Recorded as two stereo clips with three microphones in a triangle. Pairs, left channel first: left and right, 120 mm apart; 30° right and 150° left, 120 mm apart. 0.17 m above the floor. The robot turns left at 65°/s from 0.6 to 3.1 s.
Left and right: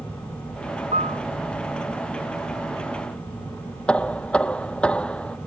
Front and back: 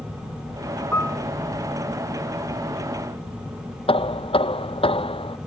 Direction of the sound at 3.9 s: 10° left.